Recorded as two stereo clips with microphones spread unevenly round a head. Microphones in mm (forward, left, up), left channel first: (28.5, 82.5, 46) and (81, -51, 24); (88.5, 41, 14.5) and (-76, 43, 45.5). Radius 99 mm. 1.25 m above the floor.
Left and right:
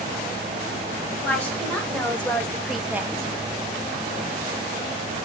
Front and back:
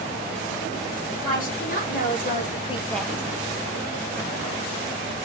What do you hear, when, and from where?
1.2 s a woman speaking: 30° left, 2.5 m; by 3.3 s 120° right, 0.6 m